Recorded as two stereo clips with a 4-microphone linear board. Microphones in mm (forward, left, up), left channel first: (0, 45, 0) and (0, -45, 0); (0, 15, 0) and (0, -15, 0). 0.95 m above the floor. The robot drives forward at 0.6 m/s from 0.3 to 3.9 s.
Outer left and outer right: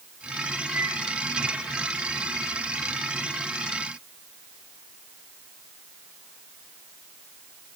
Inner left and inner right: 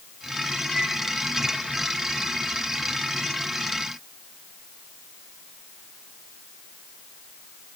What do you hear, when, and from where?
0.7 s a microwave: 20° right (ahead or behind), 7.5 m